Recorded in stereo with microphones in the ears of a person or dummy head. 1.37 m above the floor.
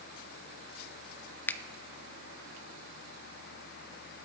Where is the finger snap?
10° left (ahead or behind), 0.7 m.